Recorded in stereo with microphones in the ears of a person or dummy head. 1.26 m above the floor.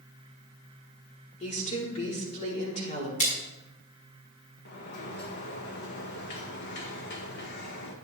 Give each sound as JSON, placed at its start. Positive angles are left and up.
{"t": 1.4, "sound": "a woman speaking", "side_deg": 35, "distance_m": 4.0}
{"t": 3.2, "sound": "a splash", "side_deg": 40, "distance_m": 4.0}
{"t": 4.7, "sound": "a sliding door", "side_deg": 60, "distance_m": 1.5}